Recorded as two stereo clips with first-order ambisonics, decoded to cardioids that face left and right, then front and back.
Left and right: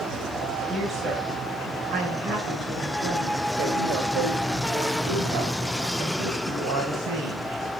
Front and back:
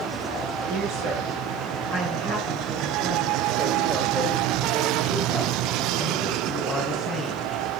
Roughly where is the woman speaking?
Behind right.